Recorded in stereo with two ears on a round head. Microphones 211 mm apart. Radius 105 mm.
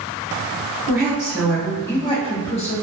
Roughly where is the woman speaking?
Centre.